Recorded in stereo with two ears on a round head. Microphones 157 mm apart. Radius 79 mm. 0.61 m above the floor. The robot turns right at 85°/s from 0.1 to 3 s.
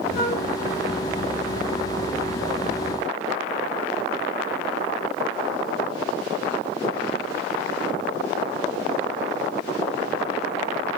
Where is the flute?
55° left (ahead or behind), 2.5 m; by 0.4 s 35° left (ahead or behind), 2.5 m.